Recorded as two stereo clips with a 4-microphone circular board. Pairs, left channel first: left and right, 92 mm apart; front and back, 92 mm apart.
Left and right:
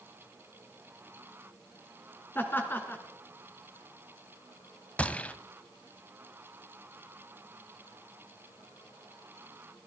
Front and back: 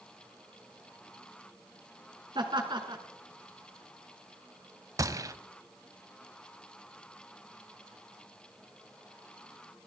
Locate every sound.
2.4 s laughter: 155° left, 2.5 m
5.0 s a gunshot: 160° left, 0.5 m